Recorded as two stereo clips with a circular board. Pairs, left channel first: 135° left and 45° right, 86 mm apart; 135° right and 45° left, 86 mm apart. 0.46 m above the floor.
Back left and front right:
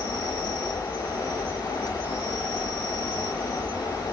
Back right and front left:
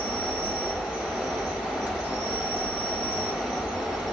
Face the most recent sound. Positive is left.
turn(degrees=10)